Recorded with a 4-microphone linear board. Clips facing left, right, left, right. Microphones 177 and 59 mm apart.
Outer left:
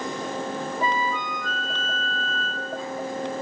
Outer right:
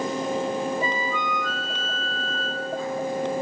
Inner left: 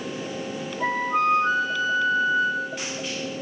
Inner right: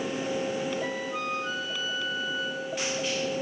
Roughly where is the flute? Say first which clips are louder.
Outer left 1 dB, inner left 9 dB; left.